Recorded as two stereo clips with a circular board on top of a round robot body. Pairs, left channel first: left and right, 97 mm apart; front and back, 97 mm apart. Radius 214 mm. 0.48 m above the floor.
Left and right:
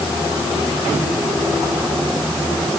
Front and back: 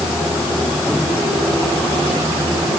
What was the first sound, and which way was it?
Only background noise.